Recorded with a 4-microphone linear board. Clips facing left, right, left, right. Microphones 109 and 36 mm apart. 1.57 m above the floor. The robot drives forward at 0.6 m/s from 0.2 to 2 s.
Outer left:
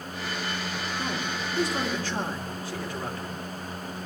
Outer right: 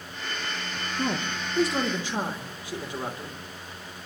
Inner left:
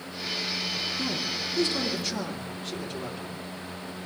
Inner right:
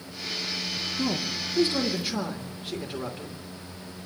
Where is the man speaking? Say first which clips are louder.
Outer right 5 dB, inner right 1 dB; 30° right (ahead or behind), 0.9 m; by 3.3 s 20° right (ahead or behind), 1.4 m.